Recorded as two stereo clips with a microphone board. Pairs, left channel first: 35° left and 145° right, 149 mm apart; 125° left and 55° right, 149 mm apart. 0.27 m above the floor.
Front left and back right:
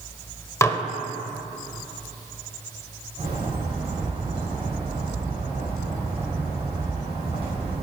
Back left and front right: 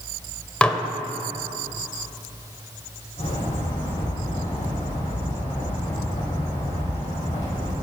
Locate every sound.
0.6 s dishes clattering: 55° left, 0.6 m
3.2 s a bird: 165° left, 3.5 m